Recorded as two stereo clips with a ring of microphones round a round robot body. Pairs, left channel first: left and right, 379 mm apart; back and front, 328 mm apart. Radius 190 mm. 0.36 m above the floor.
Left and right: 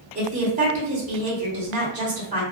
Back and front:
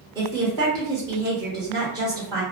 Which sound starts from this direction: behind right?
A woman speaking, at 0.1 s.